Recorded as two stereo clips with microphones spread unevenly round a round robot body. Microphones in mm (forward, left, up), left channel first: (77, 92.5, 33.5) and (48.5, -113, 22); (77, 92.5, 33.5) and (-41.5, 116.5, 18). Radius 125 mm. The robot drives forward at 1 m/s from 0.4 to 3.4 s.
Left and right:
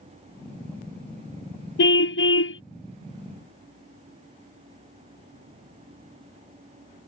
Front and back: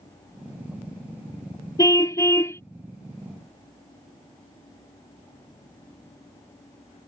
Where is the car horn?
50° left; by 2.6 s 55° left.